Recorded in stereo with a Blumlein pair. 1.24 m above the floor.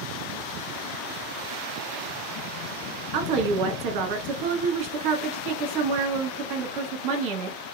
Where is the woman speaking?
40° right, 1.2 m.